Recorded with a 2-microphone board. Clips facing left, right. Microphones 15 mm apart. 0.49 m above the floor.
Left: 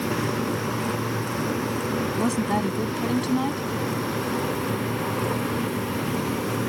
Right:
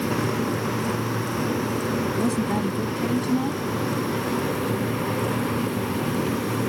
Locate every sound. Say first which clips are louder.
2.2 s a woman speaking: left 2 dB; 25° left (ahead or behind)